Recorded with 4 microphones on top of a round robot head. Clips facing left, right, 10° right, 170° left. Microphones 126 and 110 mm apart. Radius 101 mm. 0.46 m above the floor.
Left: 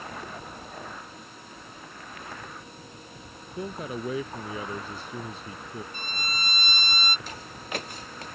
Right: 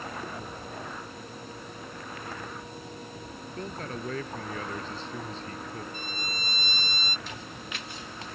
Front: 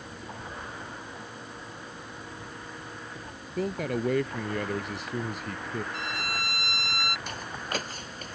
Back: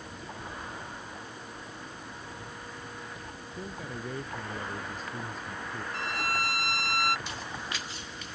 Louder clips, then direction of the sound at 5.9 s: Left 1 dB, back 2 dB; 120° left.